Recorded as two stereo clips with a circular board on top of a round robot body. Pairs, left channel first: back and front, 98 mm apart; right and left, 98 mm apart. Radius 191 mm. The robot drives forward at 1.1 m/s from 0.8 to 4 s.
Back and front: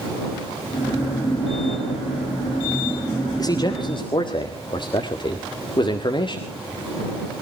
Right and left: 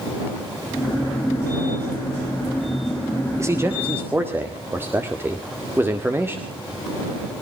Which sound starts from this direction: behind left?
A man speaking, at 3.4 s.